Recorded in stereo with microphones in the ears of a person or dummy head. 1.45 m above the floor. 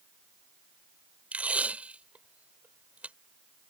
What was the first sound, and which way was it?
Tape being pulled, 5° right (ahead or behind).